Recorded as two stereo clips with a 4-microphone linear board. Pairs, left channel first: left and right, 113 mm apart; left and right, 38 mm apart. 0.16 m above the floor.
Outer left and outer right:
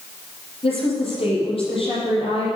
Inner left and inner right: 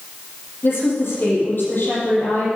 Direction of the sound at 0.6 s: 55° left (ahead or behind).